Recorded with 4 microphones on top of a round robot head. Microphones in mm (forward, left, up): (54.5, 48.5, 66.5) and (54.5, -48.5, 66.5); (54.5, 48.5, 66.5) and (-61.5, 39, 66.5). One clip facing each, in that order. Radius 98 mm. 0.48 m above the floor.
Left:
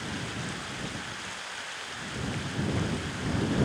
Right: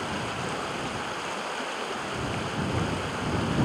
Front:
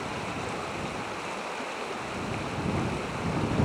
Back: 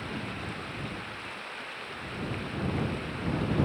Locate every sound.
0.0 s running water: 55° right